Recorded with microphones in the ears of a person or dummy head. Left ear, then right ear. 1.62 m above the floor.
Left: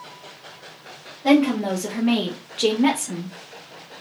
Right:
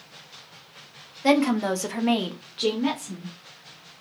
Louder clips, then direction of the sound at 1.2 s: Left 2 dB; 65° right (ahead or behind).